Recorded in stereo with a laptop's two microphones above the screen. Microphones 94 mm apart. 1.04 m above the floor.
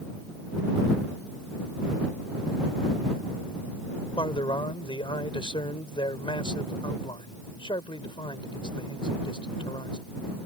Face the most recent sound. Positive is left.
turn(degrees=65)  # may be behind; listen again after turning